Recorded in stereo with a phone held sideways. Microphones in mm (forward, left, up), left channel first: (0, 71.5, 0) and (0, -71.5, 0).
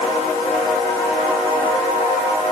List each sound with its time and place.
Only background noise.